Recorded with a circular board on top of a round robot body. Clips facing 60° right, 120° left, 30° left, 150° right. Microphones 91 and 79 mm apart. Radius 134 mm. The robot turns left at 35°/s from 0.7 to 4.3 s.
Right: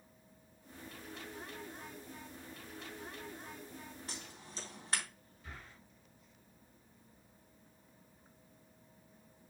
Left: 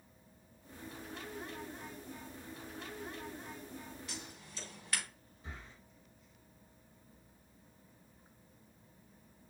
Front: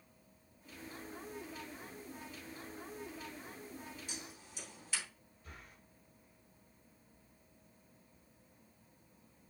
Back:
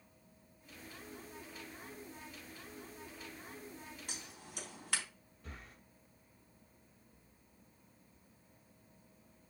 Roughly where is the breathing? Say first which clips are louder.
Left 1 dB, back 2 dB; behind.